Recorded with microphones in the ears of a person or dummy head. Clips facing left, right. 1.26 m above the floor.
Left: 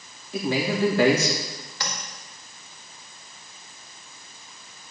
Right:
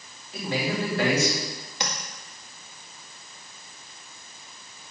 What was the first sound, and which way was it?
A man speaking, 70° left (ahead or behind).